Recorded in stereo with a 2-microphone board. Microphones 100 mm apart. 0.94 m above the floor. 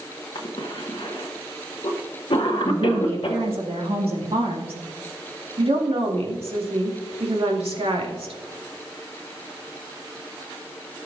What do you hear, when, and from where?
0.3 s a cough: 60° left (ahead or behind), 0.9 m
2.6 s a woman speaking: 75° right (ahead or behind), 1.8 m
5.6 s a woman speaking: 75° right (ahead or behind), 2 m